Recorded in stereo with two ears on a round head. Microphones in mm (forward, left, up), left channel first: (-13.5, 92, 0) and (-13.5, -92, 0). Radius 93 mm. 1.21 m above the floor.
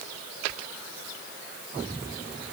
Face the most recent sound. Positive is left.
No sound to turn to.